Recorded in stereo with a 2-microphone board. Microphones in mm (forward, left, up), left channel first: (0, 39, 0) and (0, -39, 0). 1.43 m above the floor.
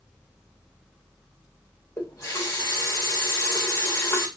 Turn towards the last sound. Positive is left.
turn(degrees=35)  # may be behind; listen again after turning